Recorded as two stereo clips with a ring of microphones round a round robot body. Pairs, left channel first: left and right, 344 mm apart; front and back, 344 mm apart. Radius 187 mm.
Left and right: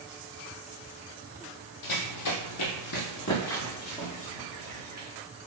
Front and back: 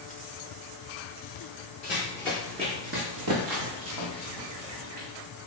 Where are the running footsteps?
65° left, 0.7 m; by 5.1 s 175° left, 1.5 m.